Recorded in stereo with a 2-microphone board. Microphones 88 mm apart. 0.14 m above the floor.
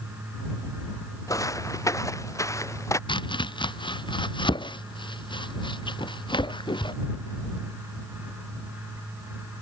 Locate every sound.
1.3 s footsteps: 35° left (ahead or behind)
3.1 s chopping: 65° left (ahead or behind)